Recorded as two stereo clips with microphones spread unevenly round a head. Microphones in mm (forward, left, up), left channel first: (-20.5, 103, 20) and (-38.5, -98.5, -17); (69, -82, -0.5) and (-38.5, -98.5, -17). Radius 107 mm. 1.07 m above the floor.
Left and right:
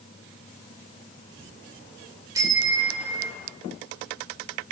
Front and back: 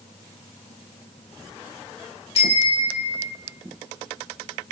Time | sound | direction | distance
2.4 | a bicycle bell | 20° right | 2.5 m